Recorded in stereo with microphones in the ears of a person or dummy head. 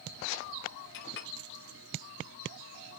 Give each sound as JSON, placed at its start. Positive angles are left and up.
{"t": 0.9, "sound": "a clink", "side_deg": 60, "distance_m": 0.6}